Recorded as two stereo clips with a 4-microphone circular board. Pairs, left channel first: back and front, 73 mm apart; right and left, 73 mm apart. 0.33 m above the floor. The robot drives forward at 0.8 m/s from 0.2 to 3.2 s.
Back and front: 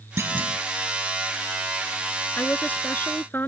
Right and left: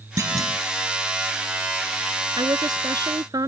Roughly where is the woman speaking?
Left.